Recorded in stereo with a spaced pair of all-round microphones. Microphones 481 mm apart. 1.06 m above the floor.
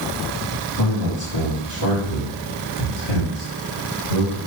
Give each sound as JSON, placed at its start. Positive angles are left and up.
{"t": 0.8, "sound": "a man speaking", "side_deg": 60, "distance_m": 3.0}